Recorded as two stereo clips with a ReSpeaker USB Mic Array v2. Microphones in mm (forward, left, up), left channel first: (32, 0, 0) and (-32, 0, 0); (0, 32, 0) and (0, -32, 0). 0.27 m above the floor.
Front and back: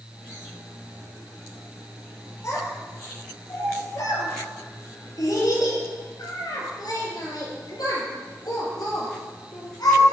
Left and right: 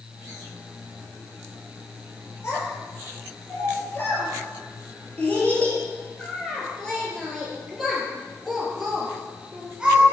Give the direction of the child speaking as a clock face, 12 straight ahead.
11 o'clock.